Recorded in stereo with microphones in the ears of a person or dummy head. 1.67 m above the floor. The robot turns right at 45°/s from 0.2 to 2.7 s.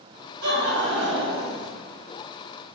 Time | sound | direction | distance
0.4 | laughter | 130° right | 1.7 m